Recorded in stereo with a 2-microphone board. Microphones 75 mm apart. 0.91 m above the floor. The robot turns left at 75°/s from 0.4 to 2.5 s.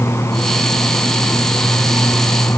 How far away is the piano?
No piano in this recording.